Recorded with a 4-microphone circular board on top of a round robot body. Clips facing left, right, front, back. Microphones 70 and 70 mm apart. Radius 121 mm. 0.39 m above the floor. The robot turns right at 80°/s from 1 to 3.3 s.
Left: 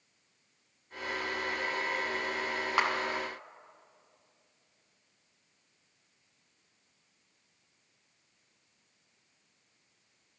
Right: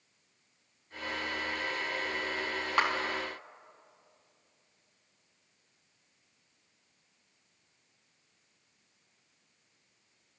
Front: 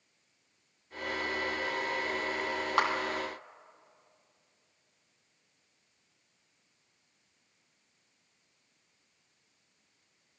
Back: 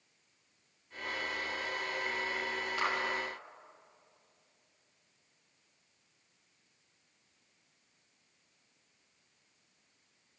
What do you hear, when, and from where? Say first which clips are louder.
2.8 s a clap: right 1 dB, front 6 dB; 5° left, 3 m; by 2.9 s 15° left, 3 m